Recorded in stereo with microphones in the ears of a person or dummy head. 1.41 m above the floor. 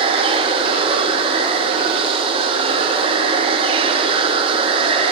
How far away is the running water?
About 0.9 m.